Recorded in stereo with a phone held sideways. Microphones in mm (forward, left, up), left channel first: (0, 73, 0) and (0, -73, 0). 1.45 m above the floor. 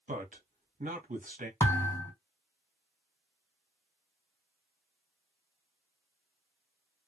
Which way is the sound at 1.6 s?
15° left (ahead or behind).